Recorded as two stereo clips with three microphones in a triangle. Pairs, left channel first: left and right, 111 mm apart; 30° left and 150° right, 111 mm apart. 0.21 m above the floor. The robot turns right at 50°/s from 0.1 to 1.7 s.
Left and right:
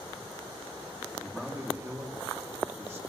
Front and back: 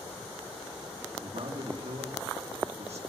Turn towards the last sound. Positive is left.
turn(degrees=-160)